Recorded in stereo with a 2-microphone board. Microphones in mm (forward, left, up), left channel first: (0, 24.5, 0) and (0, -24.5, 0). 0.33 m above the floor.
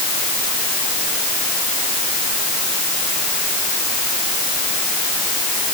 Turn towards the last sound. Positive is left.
No sound to turn to.